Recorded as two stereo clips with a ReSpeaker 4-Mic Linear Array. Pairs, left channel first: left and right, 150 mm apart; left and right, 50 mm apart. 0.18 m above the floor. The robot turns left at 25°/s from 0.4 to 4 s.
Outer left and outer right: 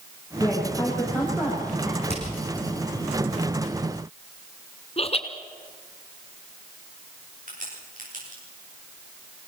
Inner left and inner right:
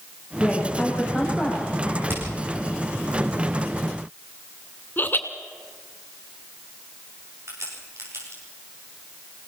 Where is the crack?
60° right (ahead or behind), 8 m.